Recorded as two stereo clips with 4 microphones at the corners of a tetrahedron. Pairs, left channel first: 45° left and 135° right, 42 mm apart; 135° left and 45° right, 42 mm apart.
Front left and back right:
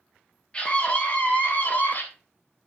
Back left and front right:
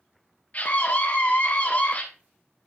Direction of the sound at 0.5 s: 100° left.